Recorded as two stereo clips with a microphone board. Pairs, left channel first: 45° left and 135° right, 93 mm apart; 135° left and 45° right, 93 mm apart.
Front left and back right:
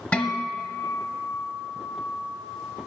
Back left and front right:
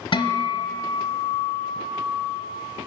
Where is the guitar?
120° left, 0.9 m.